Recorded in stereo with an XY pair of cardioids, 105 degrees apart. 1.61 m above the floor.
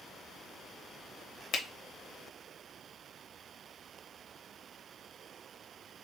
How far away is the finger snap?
About 0.8 m.